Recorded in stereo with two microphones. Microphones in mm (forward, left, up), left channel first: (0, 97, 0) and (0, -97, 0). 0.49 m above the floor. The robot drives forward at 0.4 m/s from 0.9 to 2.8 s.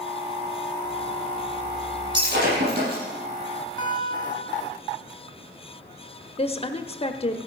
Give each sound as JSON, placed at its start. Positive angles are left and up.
{"t": 2.1, "sound": "breaking glass", "side_deg": -75, "distance_m": 7.0}
{"t": 3.8, "sound": "a guitar", "side_deg": 30, "distance_m": 1.9}
{"t": 6.4, "sound": "a woman speaking", "side_deg": 35, "distance_m": 0.8}